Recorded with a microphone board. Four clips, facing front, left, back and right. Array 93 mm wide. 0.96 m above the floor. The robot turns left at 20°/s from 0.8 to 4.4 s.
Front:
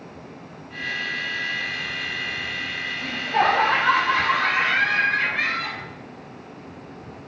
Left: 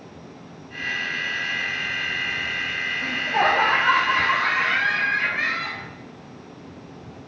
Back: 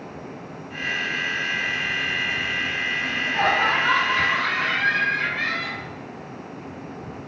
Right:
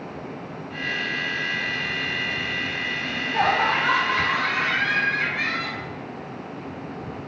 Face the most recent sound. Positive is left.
turn(degrees=10)